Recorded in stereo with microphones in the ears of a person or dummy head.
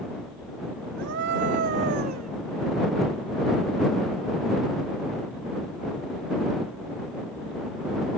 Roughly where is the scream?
Right.